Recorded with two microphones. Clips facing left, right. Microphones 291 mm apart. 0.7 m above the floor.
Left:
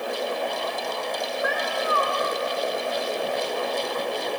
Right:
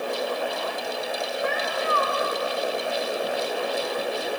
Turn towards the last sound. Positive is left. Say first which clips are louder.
# even
turn(degrees=-25)  # may be behind; listen again after turning